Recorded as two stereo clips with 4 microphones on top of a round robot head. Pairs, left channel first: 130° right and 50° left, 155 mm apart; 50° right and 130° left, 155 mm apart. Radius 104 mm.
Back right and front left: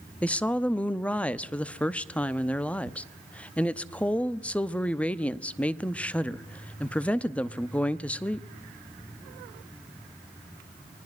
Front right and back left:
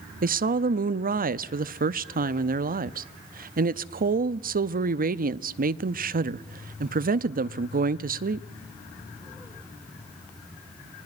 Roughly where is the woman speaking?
Behind left.